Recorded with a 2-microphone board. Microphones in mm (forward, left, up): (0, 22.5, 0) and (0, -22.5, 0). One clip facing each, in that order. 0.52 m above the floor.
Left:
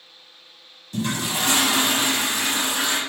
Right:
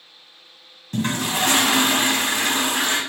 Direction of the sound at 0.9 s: 45° right (ahead or behind).